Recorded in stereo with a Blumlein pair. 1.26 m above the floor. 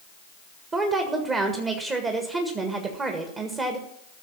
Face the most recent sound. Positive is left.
turn(degrees=-20)